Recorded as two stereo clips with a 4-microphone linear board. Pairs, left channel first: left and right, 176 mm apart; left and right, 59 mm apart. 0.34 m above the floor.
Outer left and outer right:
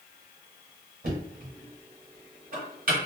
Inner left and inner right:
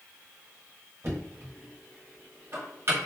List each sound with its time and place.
1.0 s knocking: 55° right (ahead or behind), 1.4 m